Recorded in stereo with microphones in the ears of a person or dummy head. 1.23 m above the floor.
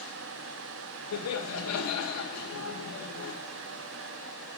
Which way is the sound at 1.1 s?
80° left.